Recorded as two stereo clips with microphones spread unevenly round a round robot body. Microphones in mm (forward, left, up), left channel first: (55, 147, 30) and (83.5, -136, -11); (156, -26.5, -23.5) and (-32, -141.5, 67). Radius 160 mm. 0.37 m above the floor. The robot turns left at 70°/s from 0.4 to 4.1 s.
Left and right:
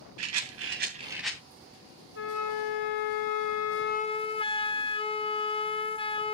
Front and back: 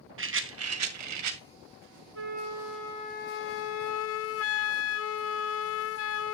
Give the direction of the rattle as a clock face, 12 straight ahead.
4 o'clock.